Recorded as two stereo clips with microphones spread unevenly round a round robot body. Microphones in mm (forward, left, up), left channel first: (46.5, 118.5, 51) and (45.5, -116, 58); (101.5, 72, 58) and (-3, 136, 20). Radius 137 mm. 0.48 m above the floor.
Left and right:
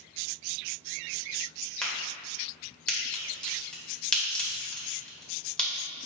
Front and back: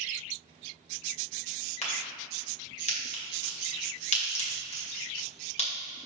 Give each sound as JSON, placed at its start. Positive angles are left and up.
{"t": 1.8, "sound": "a crack", "azimuth_deg": 5, "distance_m": 2.0}